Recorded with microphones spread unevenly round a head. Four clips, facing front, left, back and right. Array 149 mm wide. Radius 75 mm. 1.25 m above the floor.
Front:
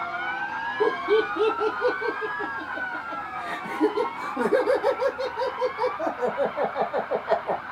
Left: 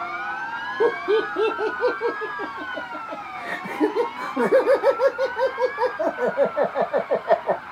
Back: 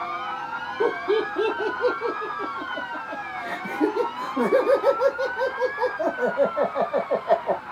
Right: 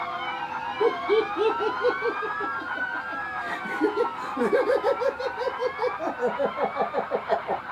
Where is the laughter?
100° left, 0.9 m.